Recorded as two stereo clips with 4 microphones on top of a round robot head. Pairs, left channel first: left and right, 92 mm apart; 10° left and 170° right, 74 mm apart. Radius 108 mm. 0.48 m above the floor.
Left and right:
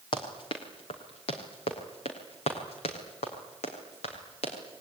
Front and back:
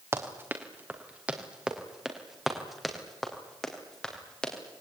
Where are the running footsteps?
130° left, 3.5 m; by 4.8 s 85° left, 6.5 m.